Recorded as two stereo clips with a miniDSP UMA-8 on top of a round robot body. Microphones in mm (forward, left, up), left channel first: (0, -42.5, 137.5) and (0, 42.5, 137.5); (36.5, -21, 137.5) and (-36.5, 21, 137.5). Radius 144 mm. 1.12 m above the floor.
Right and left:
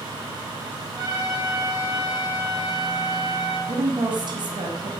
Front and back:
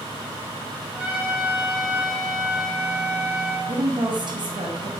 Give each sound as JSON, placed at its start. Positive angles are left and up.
{"t": 0.9, "sound": "a trumpet", "azimuth_deg": 75, "distance_m": 5.5}
{"t": 3.7, "sound": "a woman speaking", "azimuth_deg": 120, "distance_m": 2.5}